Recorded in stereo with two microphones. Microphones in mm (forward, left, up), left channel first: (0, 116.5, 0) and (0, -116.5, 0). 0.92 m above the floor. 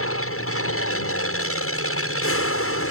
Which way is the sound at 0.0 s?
65° left (ahead or behind).